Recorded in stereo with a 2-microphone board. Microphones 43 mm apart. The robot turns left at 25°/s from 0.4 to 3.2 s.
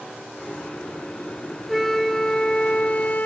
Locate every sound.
1.7 s a flute: straight behind, 0.9 m; by 3.3 s 140° left, 0.9 m